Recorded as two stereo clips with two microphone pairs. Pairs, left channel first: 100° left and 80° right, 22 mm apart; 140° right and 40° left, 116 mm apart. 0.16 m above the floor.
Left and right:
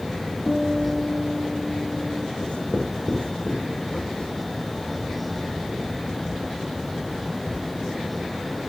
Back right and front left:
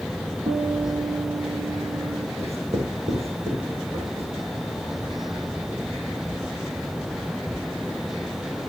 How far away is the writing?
About 8 m.